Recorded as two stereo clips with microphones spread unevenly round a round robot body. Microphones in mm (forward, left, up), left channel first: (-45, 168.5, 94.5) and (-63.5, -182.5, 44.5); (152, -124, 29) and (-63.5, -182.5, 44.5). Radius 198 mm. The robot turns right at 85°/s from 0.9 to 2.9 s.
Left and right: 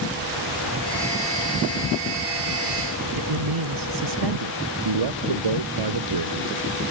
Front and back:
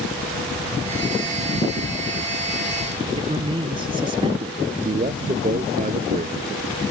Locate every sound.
3.1 s a man speaking: 100° right
4.8 s a man speaking: 110° right